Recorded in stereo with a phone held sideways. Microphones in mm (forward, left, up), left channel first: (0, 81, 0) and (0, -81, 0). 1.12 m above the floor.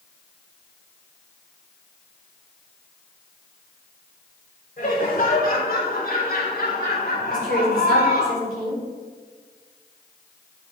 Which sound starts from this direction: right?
A woman speaking, at 7.3 s.